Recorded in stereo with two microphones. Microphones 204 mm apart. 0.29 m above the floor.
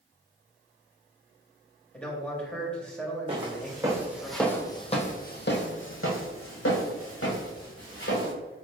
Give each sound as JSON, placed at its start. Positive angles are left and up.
{"t": 1.9, "sound": "a man speaking", "side_deg": 5, "distance_m": 0.9}
{"t": 3.3, "sound": "footsteps", "side_deg": -25, "distance_m": 1.3}